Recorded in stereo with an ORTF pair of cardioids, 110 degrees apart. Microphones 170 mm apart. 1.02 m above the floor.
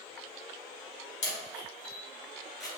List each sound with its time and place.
1.2 s a camera shutter: 45° left, 2.0 m